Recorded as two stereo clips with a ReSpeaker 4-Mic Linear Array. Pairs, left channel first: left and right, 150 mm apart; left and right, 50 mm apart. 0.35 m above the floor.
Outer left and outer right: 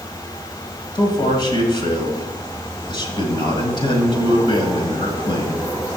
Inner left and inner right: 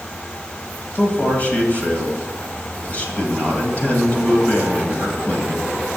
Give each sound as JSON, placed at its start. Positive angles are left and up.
{"t": 0.9, "sound": "a man speaking", "side_deg": 30, "distance_m": 1.7}